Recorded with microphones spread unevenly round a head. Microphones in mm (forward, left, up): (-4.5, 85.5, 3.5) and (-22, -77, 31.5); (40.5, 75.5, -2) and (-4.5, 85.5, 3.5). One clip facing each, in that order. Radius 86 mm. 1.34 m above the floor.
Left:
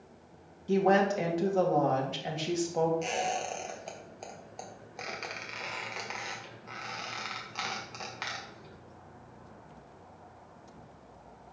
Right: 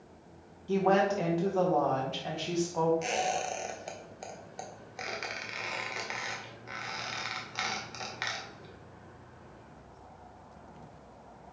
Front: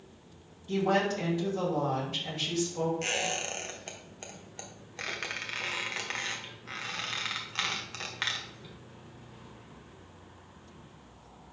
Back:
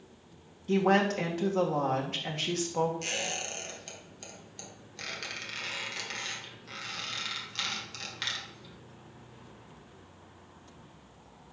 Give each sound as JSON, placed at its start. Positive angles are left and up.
{"t": 0.7, "sound": "a woman speaking", "azimuth_deg": 150, "distance_m": 1.6}
{"t": 3.0, "sound": "a squeak", "azimuth_deg": -45, "distance_m": 1.0}